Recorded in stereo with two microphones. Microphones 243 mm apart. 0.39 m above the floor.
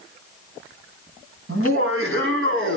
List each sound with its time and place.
1.5 s laughter: 60° right (ahead or behind), 3 m; by 2.8 s 55° right (ahead or behind), 4 m